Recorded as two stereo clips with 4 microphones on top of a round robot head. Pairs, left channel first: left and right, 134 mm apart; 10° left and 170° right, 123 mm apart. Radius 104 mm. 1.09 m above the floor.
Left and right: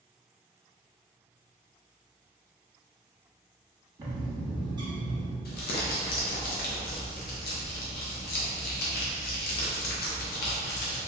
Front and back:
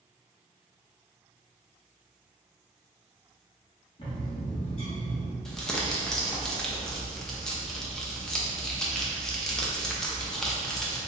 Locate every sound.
4.0 s a bird: 30° right, 1.0 m
5.5 s crumpling: 100° left, 0.5 m